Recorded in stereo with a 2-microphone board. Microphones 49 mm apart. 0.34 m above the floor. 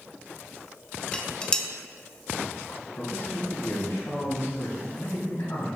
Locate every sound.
1.1 s dishes clattering: 20° left (ahead or behind), 0.7 m
3.0 s a man speaking: 65° left (ahead or behind), 2.5 m